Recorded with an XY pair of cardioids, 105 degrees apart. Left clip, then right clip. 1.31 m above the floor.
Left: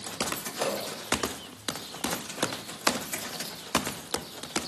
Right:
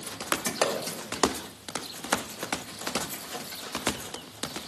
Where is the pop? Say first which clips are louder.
Right 3 dB; 50° right, 1.7 m.